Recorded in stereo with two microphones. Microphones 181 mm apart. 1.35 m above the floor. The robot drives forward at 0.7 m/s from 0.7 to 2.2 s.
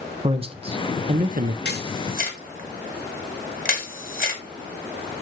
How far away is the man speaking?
About 1.0 m.